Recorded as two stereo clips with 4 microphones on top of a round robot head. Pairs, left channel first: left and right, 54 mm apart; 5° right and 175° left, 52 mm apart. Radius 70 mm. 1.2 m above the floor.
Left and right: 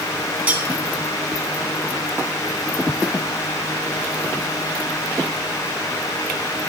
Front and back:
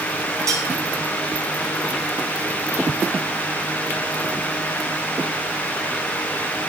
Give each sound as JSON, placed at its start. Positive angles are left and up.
{"t": 0.5, "sound": "cutlery clinking", "azimuth_deg": -150, "distance_m": 1.7}